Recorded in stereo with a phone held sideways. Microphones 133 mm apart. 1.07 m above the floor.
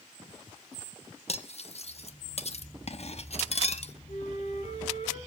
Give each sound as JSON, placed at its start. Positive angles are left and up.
{"t": 1.3, "sound": "cutlery clinking", "side_deg": 50, "distance_m": 0.8}
{"t": 4.1, "sound": "a flute", "side_deg": 60, "distance_m": 6.0}